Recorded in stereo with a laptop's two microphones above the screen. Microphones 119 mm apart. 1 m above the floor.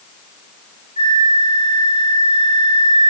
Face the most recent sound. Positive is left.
turn(degrees=55)  # may be behind; listen again after turning